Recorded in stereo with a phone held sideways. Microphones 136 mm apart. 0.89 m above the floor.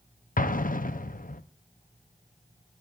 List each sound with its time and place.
0.4 s an explosion: 75° left (ahead or behind), 0.7 m